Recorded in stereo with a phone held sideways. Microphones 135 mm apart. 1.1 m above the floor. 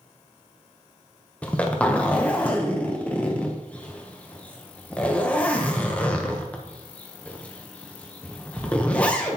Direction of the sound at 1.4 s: 10° left (ahead or behind).